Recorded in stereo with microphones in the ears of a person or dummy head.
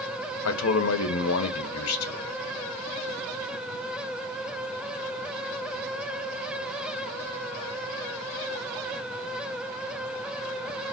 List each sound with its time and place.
0.5 s a man speaking: 70° left (ahead or behind), 1.0 m